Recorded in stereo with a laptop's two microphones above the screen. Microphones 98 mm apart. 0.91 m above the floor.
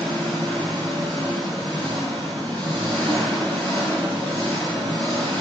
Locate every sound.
0.0 s an engine running: 15° left (ahead or behind), 3.5 m